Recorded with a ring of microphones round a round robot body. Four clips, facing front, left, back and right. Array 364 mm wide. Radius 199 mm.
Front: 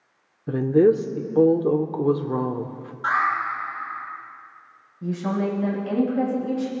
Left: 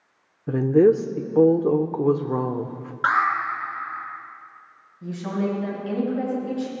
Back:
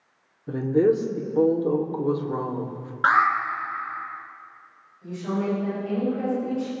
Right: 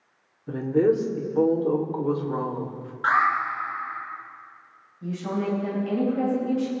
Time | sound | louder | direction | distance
0.5 | a woman speaking | left 5 dB, front 3 dB | 60° left | 1.0 m
3.0 | an alarm | even, back 3 dB | 140° left | 4 m
5.0 | a woman speaking | left 1 dB, front 2 dB | 10° left | 7 m